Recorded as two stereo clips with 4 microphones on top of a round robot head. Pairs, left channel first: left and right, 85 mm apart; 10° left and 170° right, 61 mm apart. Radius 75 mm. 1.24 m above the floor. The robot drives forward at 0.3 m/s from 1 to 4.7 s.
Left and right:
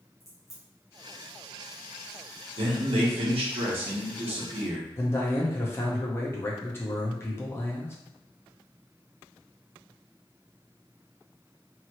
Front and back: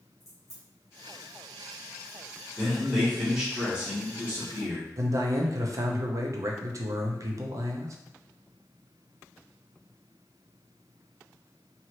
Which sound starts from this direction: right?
A man speaking, at 2.6 s.